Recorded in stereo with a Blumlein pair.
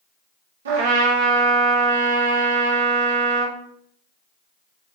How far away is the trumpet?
About 1.1 m.